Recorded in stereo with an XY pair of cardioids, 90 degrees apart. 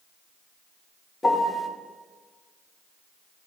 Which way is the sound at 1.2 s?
30° left.